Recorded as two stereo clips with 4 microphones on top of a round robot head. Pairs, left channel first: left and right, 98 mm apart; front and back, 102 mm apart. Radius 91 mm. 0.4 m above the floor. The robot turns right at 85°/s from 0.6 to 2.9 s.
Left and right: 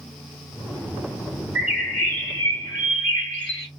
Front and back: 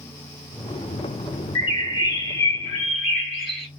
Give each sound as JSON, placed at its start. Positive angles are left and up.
{"t": 1.6, "sound": "a bird", "azimuth_deg": -25, "distance_m": 2.0}